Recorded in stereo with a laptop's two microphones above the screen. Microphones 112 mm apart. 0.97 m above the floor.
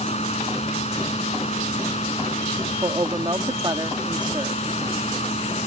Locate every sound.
0.0 s a fan: 80° left
2.8 s a woman speaking: 40° right (ahead or behind)